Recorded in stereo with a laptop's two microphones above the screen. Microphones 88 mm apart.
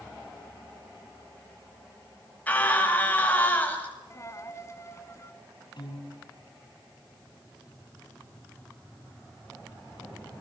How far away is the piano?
About 3 m.